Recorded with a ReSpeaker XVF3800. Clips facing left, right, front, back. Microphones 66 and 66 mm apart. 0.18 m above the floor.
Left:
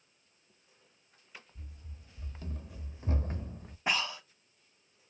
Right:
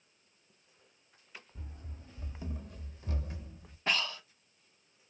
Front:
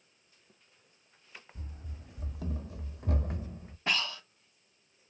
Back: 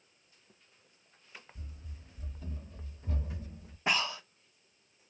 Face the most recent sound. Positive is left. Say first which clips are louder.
# left 1 dB, back 2 dB
turn(degrees=140)